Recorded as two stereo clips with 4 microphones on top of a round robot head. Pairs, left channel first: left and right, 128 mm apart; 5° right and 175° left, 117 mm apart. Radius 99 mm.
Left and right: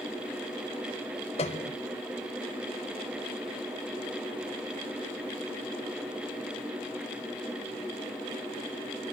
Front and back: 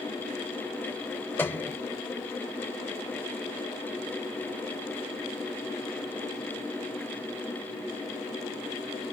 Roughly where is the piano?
Ahead left.